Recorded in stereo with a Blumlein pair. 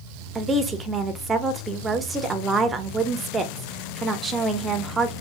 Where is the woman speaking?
15° right, 0.7 m.